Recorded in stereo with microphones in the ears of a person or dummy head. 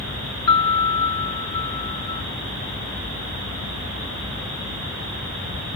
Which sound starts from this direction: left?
A piano, at 0.5 s.